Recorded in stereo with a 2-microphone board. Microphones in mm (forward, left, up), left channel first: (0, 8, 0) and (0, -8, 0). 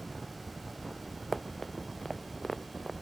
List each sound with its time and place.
1.3 s running footsteps: 10° left (ahead or behind); by 2.9 s 20° left (ahead or behind)